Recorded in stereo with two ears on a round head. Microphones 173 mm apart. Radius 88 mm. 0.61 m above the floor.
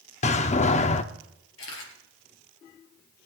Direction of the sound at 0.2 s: 35° left (ahead or behind).